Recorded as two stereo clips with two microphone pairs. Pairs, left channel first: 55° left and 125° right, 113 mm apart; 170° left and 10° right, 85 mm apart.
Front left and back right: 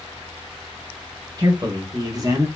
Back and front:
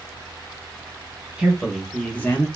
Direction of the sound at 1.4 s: 90° right.